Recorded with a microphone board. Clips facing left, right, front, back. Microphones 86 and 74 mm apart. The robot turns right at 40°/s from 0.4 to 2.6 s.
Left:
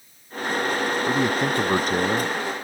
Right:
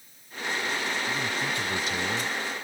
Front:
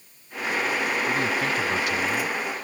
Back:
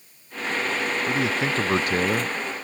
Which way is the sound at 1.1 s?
95° left.